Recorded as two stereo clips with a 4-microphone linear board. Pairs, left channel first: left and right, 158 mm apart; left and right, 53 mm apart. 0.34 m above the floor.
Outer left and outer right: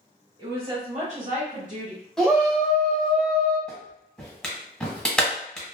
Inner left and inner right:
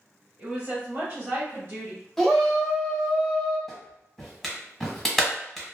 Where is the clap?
5° left (ahead or behind), 0.9 m.